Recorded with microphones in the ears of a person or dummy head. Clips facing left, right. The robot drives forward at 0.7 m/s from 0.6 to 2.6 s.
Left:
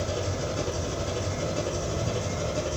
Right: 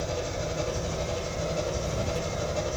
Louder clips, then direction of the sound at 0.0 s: Left 1 dB; 80° left.